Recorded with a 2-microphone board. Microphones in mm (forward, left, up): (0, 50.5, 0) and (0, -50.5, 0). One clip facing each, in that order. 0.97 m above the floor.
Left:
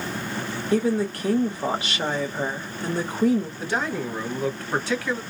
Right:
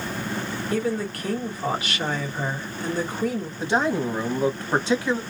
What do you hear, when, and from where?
0.7 s a woman speaking: 30° left (ahead or behind), 1.8 m
3.6 s a man speaking: 20° right (ahead or behind), 0.9 m